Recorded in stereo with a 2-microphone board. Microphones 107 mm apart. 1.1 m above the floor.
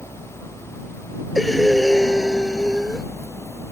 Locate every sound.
1.4 s breathing: centre (ahead or behind)